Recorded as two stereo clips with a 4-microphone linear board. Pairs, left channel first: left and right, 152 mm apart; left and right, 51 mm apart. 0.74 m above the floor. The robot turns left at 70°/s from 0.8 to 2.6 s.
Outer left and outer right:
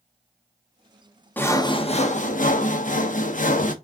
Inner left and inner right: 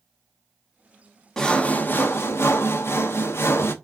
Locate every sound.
1.4 s sawing: 165° left, 0.7 m; by 3.7 s 80° left, 0.7 m